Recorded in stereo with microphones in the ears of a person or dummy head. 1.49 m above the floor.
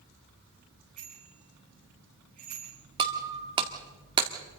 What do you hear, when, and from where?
1.0 s a bicycle bell: 40° right (ahead or behind), 10 m
3.0 s breaking glass: 20° right (ahead or behind), 1.8 m